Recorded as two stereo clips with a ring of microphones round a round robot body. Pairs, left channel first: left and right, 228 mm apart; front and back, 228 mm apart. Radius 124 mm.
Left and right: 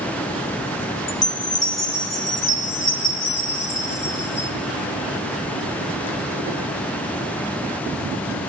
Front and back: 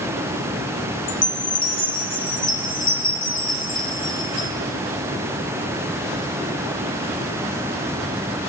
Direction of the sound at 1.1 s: 55° left.